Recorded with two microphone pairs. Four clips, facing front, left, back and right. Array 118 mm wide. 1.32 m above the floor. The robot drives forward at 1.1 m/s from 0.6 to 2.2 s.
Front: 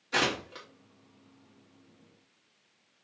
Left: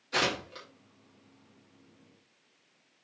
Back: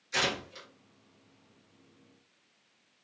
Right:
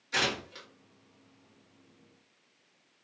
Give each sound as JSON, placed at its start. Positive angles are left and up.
{"t": 0.1, "sound": "tearing paper", "azimuth_deg": 15, "distance_m": 3.5}